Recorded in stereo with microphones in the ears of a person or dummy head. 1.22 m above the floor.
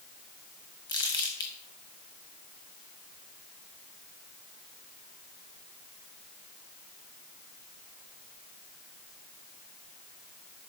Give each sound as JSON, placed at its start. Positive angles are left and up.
{"t": 0.9, "sound": "crumpling", "side_deg": 20, "distance_m": 1.4}